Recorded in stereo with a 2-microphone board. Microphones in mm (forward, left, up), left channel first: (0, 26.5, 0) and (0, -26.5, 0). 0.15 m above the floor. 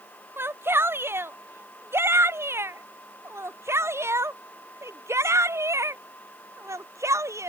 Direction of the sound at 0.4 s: 45° right (ahead or behind).